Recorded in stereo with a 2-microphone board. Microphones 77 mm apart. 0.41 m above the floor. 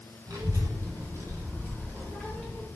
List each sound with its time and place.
0.3 s a child speaking: 55° right (ahead or behind), 1.5 m; by 2.7 s centre (ahead or behind), 1.2 m